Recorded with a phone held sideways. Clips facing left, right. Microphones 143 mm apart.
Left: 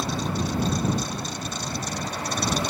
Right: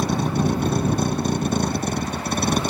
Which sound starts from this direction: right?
A vehicle, at 0.0 s.